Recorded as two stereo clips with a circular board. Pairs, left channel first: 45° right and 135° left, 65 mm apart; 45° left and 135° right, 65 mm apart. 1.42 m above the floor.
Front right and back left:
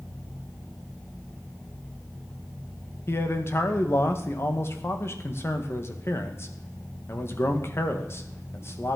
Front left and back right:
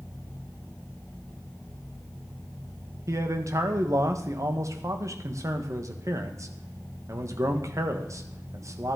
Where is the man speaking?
95° right, 1.7 m.